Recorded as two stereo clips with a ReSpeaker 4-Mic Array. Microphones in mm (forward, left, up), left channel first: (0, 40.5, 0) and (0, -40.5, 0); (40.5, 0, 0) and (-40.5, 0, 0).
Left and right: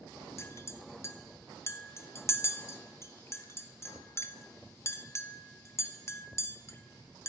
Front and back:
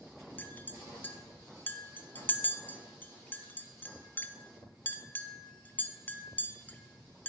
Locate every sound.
0.4 s a clink: 55° left, 0.9 m